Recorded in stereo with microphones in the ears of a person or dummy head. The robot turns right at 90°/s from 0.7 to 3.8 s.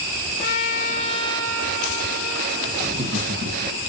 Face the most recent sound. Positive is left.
turn(degrees=-65)  # may be behind; listen again after turning